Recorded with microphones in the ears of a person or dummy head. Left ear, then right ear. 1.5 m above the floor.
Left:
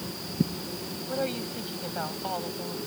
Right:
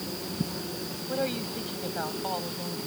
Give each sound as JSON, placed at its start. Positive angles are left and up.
{"t": 1.1, "sound": "a woman speaking", "side_deg": 5}